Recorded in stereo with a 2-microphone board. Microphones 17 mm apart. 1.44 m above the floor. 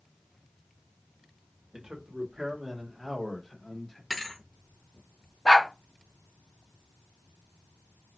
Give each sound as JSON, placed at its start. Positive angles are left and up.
{"t": 1.7, "sound": "a man speaking", "side_deg": -50, "distance_m": 1.0}
{"t": 4.1, "sound": "a thud", "side_deg": 15, "distance_m": 0.7}
{"t": 5.5, "sound": "a dog barking", "side_deg": 20, "distance_m": 0.9}